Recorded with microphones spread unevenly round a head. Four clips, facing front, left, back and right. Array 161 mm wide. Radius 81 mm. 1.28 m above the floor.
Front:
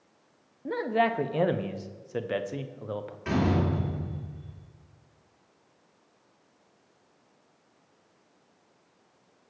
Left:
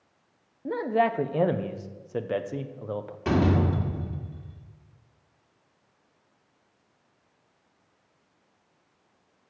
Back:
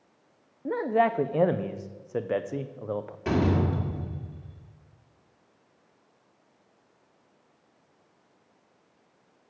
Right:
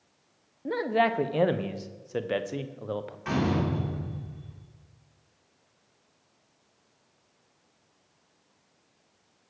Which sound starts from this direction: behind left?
A door slam, at 3.2 s.